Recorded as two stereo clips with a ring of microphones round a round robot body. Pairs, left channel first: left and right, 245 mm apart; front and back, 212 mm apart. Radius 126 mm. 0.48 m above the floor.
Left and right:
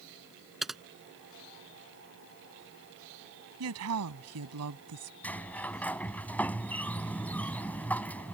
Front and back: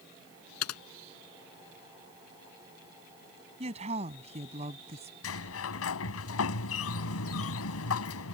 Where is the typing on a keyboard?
Straight ahead.